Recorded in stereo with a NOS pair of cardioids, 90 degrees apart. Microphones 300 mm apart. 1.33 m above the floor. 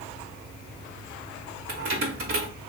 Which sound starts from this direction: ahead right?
Keys jangling, at 1.7 s.